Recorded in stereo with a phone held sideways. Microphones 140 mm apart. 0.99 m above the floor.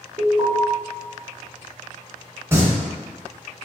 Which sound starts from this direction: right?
An alarm, at 0.2 s.